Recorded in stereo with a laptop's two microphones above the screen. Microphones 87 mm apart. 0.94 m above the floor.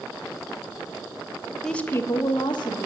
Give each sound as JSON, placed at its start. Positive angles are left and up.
{"t": 1.6, "sound": "a woman speaking", "side_deg": 5, "distance_m": 0.7}